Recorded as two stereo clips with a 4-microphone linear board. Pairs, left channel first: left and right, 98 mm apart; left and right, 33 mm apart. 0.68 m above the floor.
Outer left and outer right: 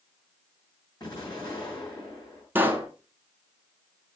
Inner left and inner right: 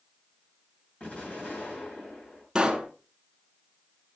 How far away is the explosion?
About 6.5 m.